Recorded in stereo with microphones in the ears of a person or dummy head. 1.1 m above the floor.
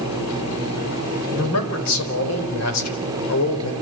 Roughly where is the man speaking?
Left.